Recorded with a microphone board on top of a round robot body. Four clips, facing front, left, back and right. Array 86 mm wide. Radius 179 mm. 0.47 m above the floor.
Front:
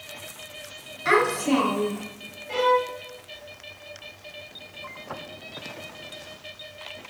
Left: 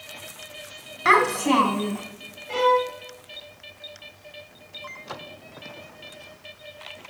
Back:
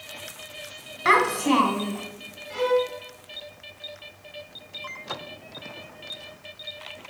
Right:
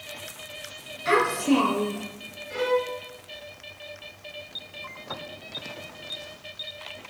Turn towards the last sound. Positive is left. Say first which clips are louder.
# left 5 dB, front 2 dB
turn(degrees=60)